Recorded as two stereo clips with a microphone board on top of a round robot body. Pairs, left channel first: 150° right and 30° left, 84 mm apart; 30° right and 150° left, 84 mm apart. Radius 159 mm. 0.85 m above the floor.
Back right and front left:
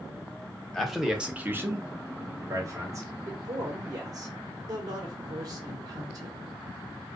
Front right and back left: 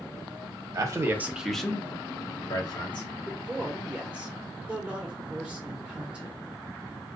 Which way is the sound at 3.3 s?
70° left.